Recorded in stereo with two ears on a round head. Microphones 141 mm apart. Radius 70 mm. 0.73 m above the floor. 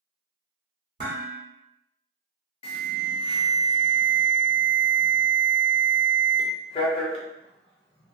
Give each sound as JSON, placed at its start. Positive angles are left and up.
{"t": 1.0, "sound": "dishes clattering", "side_deg": -60, "distance_m": 1.3}
{"t": 2.6, "sound": "an alarm", "side_deg": 35, "distance_m": 0.6}